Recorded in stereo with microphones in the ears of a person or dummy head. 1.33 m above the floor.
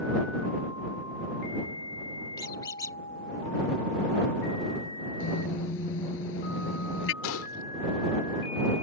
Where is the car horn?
70° left (ahead or behind).